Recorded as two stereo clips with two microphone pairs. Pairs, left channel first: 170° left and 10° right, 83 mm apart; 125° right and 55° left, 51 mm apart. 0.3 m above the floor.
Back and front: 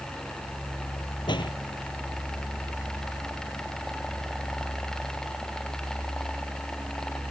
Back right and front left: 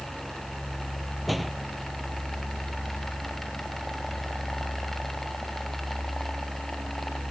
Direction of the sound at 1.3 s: 145° left.